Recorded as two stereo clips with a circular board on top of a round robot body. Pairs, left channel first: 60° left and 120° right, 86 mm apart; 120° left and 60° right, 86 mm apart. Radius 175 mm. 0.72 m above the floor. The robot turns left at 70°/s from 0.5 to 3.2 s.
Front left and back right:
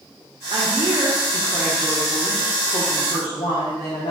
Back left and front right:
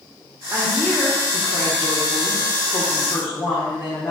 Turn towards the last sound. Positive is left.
turn(degrees=60)